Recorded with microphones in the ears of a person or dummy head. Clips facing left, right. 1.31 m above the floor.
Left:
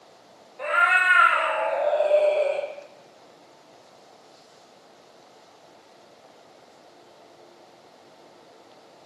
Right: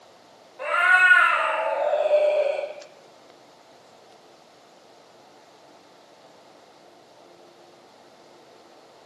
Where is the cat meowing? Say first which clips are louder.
Right 1 dB; 10° right (ahead or behind), 1.0 m; by 2.7 s 45° left (ahead or behind), 1.1 m.